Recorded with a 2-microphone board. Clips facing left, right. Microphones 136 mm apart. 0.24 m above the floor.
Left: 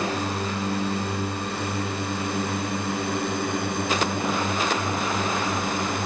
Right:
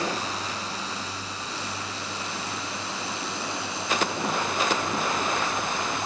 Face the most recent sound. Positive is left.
turn(degrees=55)  # may be behind; listen again after turning